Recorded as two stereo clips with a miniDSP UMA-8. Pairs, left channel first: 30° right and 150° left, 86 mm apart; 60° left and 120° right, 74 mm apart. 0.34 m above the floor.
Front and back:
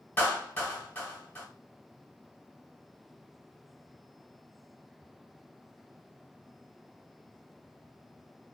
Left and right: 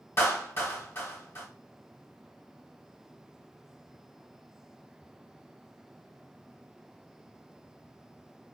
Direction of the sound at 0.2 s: 25° left.